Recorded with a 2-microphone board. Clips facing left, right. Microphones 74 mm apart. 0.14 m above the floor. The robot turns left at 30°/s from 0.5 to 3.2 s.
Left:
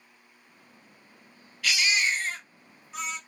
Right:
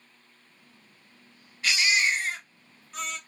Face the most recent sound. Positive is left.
turn(degrees=165)